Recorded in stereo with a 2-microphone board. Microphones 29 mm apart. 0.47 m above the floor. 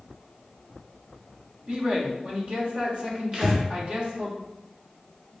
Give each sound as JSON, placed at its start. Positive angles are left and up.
{"t": 1.7, "sound": "a man speaking", "side_deg": -40, "distance_m": 1.4}
{"t": 3.3, "sound": "breathing", "side_deg": -20, "distance_m": 1.1}